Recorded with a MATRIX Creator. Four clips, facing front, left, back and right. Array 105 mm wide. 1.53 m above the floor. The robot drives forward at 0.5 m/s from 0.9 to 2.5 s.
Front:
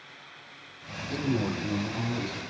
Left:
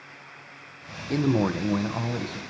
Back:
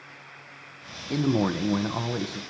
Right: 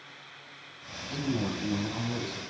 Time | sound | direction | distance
1.1 | a man speaking | 120° left | 0.5 m